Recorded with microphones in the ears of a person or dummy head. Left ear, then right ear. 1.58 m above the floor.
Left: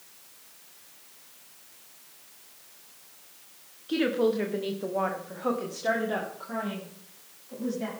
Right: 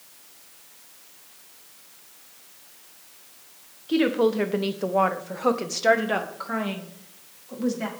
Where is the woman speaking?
5° right (ahead or behind), 1.2 m; by 7.9 s 60° right (ahead or behind), 4 m.